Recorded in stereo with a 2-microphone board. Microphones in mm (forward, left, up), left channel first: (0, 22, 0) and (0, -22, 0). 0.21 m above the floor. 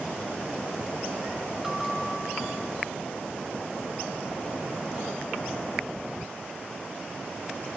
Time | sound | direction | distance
1.6 | a bell | 20° right (ahead or behind) | 3.5 m